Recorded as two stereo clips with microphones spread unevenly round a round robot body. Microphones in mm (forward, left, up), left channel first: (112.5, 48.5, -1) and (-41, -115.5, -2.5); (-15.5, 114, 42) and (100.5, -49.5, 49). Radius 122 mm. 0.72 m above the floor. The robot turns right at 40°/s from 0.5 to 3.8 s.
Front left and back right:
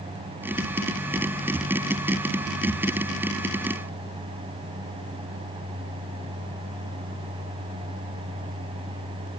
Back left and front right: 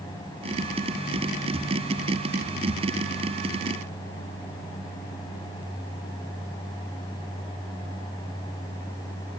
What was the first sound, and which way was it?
Only background noise.